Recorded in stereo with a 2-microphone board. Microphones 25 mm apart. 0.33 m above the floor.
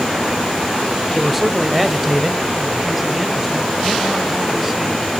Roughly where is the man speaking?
Centre.